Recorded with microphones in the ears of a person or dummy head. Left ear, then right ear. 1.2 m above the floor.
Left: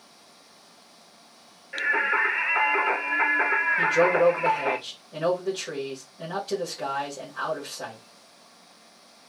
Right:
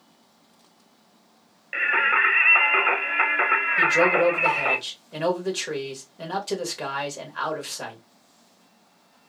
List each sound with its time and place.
1.7 s singing: 35° right (ahead or behind), 1.0 m
3.8 s a man speaking: 65° right (ahead or behind), 1.6 m